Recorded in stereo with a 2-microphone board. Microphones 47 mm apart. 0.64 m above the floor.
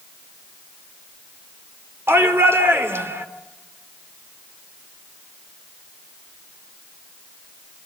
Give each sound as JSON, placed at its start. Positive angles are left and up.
{"t": 2.1, "sound": "a shout", "side_deg": -60, "distance_m": 2.5}